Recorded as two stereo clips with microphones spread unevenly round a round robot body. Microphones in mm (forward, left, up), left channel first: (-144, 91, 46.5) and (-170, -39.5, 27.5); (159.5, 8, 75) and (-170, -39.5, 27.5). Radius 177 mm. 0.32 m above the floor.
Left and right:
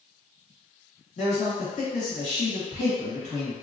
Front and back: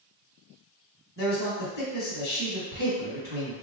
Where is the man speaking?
70° left, 1.4 m.